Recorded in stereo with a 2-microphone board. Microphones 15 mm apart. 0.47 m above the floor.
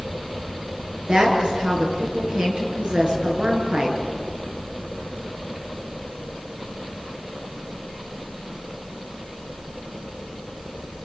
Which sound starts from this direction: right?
A woman speaking, at 1.1 s.